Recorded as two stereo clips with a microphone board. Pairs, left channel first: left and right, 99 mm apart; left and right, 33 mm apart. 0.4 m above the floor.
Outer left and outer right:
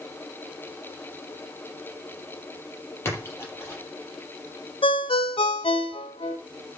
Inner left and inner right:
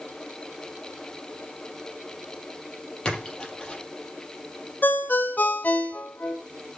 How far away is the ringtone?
About 1.5 m.